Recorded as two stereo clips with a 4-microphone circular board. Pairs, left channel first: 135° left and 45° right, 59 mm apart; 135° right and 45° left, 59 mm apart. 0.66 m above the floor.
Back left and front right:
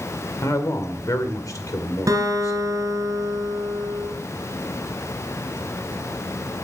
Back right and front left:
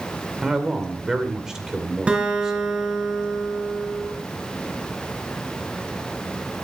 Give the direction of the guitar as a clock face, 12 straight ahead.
1 o'clock.